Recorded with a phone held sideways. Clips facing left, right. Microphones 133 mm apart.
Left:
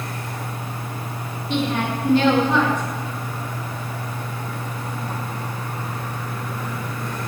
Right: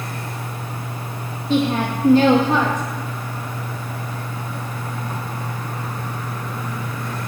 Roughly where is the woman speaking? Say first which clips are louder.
Right 4 dB; right.